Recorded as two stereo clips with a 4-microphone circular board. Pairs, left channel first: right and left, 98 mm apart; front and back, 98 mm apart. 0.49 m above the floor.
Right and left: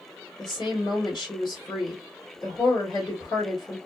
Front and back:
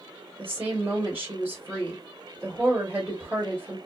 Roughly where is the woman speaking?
Behind right.